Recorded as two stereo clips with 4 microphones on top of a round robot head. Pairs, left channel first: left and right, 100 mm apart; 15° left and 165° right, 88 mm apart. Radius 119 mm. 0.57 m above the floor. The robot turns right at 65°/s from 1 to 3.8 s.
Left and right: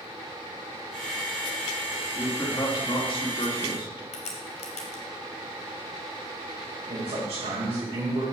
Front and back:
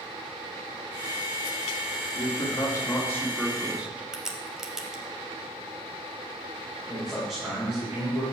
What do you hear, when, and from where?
2.1 s a man speaking: 10° left, 2 m; by 4.0 s 115° left, 2 m
4.1 s a crack: 110° left, 0.7 m
6.9 s a man speaking: 75° right, 2.5 m